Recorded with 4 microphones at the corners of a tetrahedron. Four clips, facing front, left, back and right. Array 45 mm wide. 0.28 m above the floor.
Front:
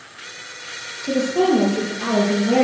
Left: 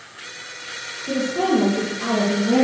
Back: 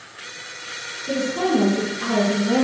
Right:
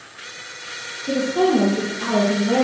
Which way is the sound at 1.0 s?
15° right.